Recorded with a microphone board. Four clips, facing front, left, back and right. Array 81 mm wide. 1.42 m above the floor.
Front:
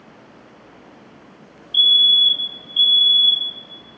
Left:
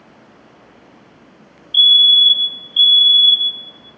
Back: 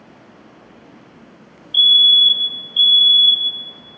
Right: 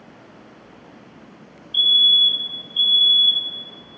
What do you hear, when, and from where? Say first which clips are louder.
1.7 s a fire alarm: left 5 dB, back 3 dB; 100° left, 0.9 m